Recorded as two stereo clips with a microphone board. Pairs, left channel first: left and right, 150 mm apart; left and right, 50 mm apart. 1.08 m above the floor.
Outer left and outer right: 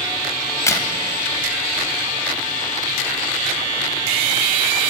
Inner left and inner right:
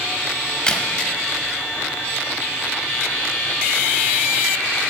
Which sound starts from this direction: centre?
A crack, at 0.5 s.